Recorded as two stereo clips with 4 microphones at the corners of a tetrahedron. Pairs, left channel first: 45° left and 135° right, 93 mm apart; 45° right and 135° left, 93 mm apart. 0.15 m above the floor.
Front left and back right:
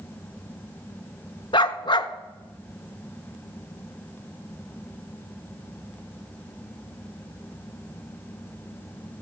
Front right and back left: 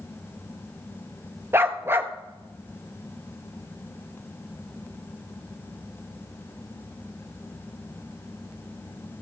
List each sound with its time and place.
1.5 s a dog barking: 75° left, 0.7 m